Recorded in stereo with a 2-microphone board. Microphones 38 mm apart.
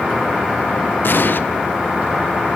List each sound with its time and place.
1.0 s an explosion: 65° left (ahead or behind), 1.0 m